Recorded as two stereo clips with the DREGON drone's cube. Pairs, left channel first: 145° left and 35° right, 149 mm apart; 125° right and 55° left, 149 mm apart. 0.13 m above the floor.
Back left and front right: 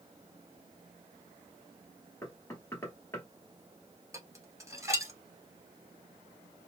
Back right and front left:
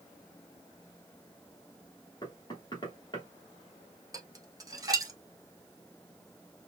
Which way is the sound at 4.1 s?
15° left.